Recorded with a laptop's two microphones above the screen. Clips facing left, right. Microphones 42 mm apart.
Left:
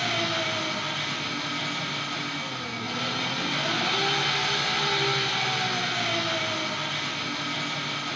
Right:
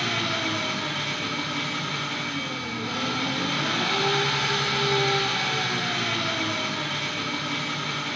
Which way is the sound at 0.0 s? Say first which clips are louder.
Right 1 dB; 70° right (ahead or behind).